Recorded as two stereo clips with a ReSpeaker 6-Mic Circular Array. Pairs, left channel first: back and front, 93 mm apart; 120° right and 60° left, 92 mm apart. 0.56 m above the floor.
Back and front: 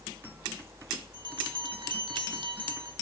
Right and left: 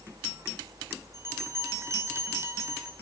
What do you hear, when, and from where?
1.1 s a bell: 5° left, 2.0 m